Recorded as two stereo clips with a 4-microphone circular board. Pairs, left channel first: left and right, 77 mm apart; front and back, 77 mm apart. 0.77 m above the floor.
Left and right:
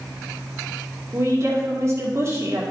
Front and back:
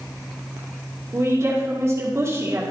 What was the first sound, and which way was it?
A woman speaking, 135° right.